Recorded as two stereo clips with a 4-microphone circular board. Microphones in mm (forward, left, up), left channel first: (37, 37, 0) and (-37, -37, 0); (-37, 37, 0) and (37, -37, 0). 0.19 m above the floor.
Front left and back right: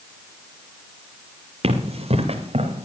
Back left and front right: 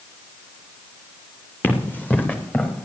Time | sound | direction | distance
1.6 | running footsteps | 155° right | 3 m